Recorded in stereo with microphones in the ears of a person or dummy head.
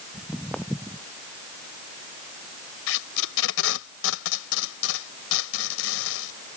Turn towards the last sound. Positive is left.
turn(degrees=80)